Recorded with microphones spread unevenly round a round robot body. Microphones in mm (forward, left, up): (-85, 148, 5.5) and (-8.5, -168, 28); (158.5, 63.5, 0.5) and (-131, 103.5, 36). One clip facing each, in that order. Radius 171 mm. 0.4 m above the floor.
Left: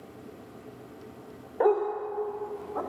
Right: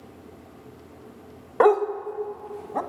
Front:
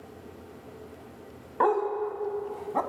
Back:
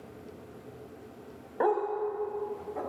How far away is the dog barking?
About 0.8 m.